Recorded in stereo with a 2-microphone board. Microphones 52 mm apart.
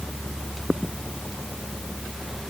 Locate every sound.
Only background noise.